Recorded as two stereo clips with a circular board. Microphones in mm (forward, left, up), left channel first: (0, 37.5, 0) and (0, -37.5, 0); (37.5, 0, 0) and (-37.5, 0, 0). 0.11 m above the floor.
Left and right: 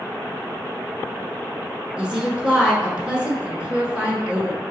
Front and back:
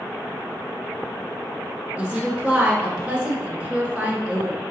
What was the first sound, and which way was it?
A woman speaking, 135° right.